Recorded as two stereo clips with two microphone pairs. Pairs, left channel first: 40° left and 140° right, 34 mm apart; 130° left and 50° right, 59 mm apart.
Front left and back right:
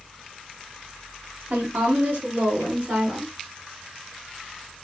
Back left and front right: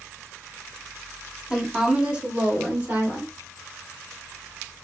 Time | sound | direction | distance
1.5 | a woman speaking | 125° right | 1.0 m